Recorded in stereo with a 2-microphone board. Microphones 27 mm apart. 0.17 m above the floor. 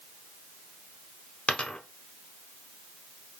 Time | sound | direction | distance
1.5 | a dropped coin | 40° left (ahead or behind) | 0.8 m